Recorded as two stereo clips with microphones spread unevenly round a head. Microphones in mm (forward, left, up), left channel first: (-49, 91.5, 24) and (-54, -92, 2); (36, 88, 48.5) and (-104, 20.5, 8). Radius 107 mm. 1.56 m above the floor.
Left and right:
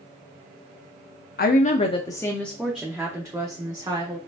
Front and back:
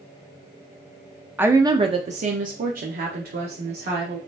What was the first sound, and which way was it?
A woman speaking, 130° left.